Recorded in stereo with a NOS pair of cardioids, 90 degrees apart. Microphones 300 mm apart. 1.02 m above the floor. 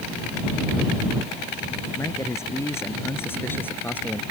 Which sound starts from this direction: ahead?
A man speaking, at 1.9 s.